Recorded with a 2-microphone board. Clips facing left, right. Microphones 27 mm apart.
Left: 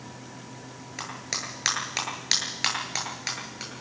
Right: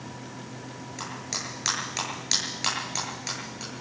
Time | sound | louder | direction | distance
1.0 | a clap | left 1 dB | 25° left (ahead or behind) | 8.5 m